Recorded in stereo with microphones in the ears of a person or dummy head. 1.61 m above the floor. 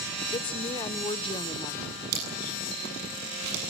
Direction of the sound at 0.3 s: 25° left (ahead or behind).